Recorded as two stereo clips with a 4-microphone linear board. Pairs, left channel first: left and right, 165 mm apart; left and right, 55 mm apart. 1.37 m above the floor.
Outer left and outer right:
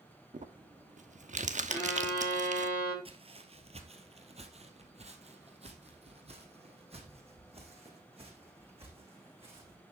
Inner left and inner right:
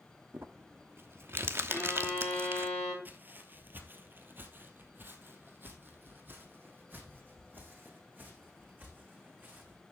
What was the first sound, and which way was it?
Crumpling, 50° right (ahead or behind).